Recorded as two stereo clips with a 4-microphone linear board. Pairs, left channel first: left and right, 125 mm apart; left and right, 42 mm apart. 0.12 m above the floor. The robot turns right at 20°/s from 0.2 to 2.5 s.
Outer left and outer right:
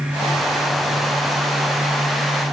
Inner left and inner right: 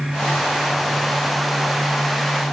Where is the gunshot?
No gunshot in this recording.